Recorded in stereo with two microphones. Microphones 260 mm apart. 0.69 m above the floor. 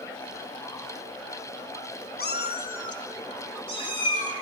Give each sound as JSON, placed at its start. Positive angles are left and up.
{"t": 2.2, "sound": "a cat meowing", "side_deg": 40, "distance_m": 0.6}